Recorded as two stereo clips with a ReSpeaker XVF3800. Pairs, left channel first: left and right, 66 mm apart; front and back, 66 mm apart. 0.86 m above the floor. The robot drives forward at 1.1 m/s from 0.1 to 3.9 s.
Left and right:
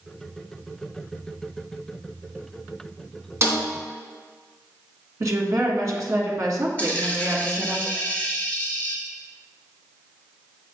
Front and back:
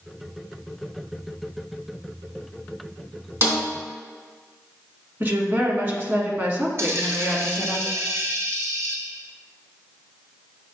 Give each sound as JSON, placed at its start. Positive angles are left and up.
{"t": 3.4, "sound": "a snare drum", "azimuth_deg": -135, "distance_m": 2.5}
{"t": 5.2, "sound": "a woman speaking", "azimuth_deg": -125, "distance_m": 1.5}
{"t": 6.8, "sound": "a dropped coin", "azimuth_deg": 150, "distance_m": 1.2}